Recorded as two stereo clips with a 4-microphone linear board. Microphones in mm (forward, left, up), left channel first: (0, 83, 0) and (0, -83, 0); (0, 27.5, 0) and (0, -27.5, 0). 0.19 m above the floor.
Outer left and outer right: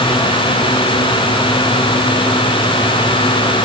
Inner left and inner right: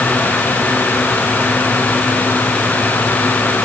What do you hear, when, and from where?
Only background noise.